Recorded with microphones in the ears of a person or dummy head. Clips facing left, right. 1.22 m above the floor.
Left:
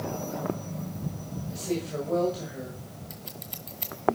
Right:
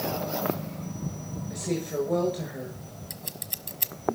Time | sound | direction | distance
1.5 | a woman speaking | 15° right (ahead or behind) | 7 m
3.1 | scissors | 15° right (ahead or behind) | 1.1 m